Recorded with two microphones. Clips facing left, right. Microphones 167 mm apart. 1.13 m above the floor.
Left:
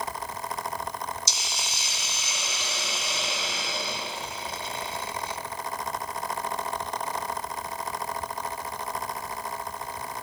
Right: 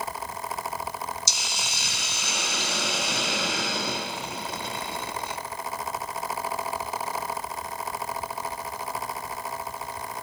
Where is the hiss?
65° right (ahead or behind), 2 m.